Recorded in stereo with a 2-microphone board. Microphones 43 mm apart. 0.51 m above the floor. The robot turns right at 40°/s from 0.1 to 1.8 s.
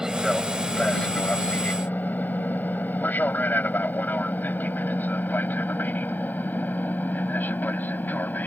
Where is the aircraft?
15° right (ahead or behind); by 8.5 s 45° left (ahead or behind).